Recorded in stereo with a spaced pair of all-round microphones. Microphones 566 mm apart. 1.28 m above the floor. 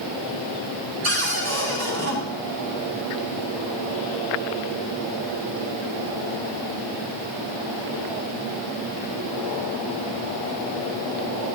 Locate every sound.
1.0 s a cupboard door: 25° right (ahead or behind), 4 m